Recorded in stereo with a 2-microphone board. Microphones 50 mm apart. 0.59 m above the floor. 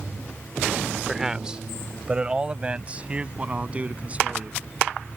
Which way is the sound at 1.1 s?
10° right (ahead or behind).